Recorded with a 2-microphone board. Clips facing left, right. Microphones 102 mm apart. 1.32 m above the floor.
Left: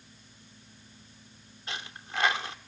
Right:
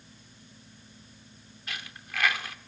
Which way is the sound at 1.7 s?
25° left (ahead or behind).